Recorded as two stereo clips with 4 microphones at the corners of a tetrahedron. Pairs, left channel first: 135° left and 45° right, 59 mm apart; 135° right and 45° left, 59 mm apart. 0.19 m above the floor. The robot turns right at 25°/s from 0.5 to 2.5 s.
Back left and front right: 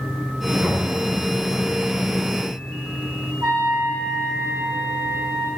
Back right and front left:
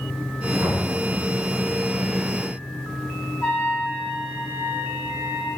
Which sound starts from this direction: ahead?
Knocking, at 0.6 s.